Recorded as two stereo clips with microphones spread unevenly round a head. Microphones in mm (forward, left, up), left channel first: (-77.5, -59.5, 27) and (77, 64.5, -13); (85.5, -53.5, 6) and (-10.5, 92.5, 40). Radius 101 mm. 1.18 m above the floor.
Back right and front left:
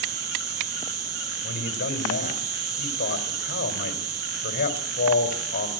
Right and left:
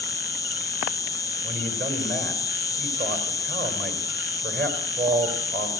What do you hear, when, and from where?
0.0 s an insect: 20° left, 1.3 m
1.4 s a man speaking: 170° left, 4 m